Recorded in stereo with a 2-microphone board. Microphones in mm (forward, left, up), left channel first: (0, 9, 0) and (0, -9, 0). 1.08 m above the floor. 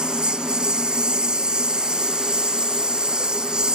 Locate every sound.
0.0 s a lawn mower: 55° right (ahead or behind); by 3.8 s 50° right (ahead or behind)